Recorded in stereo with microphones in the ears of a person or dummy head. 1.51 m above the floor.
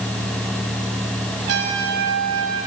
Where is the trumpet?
85° right, 4.5 m.